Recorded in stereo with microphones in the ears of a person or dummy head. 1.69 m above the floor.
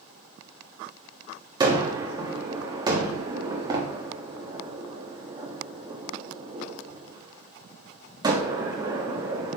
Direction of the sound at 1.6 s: 30° right (ahead or behind).